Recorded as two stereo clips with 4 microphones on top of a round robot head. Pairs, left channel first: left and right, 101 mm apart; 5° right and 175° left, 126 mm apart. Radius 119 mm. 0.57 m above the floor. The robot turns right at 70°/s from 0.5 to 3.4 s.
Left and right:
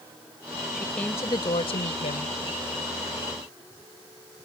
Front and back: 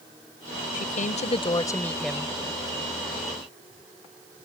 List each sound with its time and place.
0.7 s a woman speaking: 5° right; by 2.4 s 105° left